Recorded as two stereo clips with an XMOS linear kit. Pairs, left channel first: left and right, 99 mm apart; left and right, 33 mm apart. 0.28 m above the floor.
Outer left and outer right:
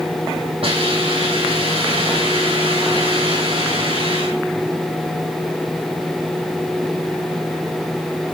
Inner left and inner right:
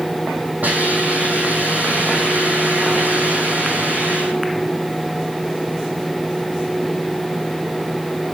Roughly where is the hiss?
Right.